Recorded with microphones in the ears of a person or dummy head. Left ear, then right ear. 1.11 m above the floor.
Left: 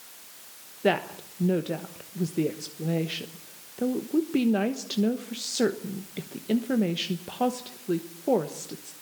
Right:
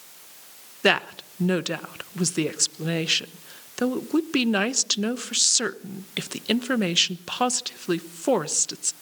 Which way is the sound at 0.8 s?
55° right (ahead or behind).